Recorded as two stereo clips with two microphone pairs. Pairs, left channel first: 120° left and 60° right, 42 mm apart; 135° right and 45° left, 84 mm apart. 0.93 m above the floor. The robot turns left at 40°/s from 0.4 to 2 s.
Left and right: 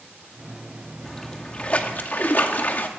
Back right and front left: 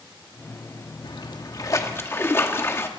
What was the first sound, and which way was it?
A splash, 155° right.